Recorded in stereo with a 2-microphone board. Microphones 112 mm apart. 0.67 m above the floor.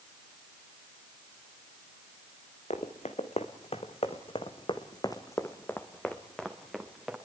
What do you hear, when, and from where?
2.7 s running footsteps: 75° left (ahead or behind), 2.5 m; by 7.2 s 5° right (ahead or behind), 3 m